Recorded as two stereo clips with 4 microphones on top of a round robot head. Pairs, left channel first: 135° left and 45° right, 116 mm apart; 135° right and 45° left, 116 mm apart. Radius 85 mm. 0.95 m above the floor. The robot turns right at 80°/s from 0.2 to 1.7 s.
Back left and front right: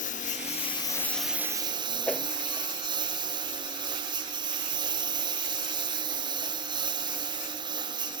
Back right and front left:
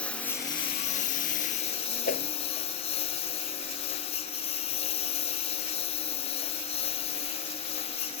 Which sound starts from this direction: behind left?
A lawn mower, at 0.0 s.